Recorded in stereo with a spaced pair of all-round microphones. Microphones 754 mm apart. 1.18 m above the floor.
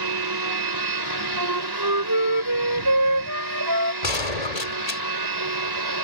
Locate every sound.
0.0 s a machine running: 30° right (ahead or behind)
1.4 s a flute: 25° right (ahead or behind)
4.0 s a gunshot: 55° left (ahead or behind)